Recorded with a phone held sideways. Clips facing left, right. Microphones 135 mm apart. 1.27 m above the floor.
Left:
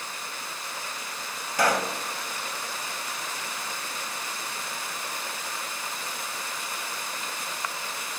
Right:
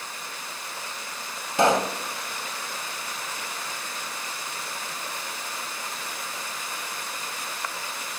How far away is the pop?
About 1.2 m.